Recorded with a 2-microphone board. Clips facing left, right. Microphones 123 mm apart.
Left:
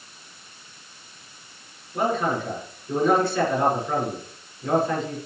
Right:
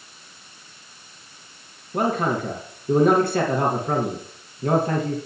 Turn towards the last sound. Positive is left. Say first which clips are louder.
# right 1 dB
turn(degrees=-55)  # may be behind; listen again after turning